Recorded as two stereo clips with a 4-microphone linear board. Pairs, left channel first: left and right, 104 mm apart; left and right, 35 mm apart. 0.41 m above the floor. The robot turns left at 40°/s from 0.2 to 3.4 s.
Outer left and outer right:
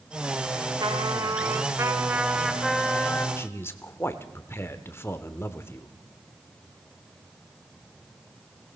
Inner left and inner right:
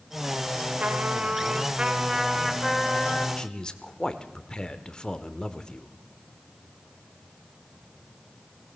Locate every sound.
0.8 s a trumpet: 105° right, 1.2 m; by 3.3 s 155° left, 1.2 m
3.4 s a man speaking: 25° left (ahead or behind), 0.8 m